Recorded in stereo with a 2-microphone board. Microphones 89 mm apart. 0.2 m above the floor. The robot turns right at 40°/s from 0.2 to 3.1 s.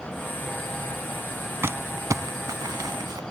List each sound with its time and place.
1.6 s crumpling: 25° right (ahead or behind); by 3.2 s 50° right (ahead or behind)